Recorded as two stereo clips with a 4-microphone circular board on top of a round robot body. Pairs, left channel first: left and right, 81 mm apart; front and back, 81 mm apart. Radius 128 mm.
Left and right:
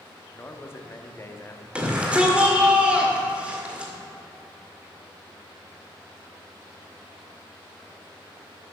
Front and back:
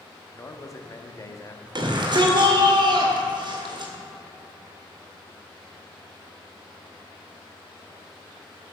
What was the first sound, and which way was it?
A man speaking, 40° left.